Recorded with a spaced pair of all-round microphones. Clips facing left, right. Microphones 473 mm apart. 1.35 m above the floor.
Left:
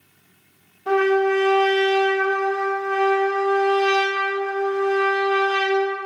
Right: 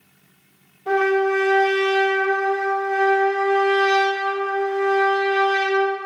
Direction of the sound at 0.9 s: 30° left (ahead or behind).